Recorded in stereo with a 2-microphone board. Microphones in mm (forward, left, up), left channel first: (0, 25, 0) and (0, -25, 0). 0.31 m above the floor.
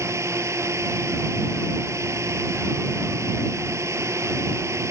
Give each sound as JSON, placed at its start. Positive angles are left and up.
{"t": 0.0, "sound": "a drone", "side_deg": -70}